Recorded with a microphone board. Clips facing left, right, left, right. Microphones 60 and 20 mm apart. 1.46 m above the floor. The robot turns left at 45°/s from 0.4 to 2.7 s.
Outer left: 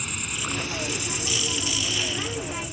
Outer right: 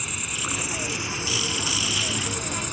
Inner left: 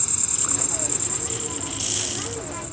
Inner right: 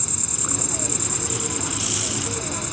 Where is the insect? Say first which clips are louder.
Even, inner right 1 dB; straight ahead; by 2.7 s 105° right.